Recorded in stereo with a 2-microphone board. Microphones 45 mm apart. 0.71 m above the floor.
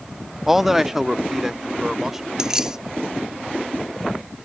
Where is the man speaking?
5° right (ahead or behind); by 2.3 s 10° right (ahead or behind).